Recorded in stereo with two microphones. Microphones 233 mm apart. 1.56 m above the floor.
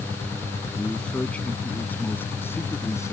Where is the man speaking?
5° left (ahead or behind); by 3.1 s 10° left (ahead or behind).